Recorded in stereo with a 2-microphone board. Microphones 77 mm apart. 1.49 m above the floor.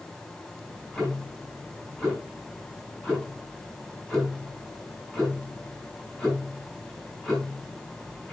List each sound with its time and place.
0.6 s ticking: 5° left (ahead or behind), 5 m